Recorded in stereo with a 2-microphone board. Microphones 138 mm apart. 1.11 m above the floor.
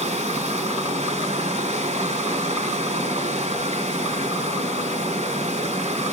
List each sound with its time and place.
0.0 s running water: 50° right (ahead or behind), 2.5 m